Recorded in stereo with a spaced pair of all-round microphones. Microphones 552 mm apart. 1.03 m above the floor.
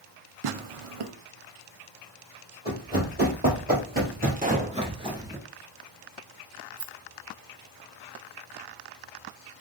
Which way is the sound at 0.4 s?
65° right (ahead or behind).